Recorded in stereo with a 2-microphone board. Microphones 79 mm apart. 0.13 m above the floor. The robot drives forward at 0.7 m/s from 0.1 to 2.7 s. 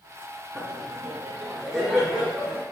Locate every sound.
0.6 s laughter: centre (ahead or behind), 1.2 m